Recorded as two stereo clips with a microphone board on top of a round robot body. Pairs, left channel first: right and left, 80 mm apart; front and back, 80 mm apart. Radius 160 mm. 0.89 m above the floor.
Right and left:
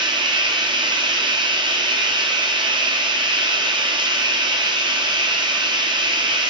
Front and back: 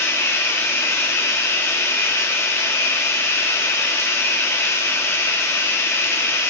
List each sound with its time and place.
0.0 s running water: 60° left, 1.0 m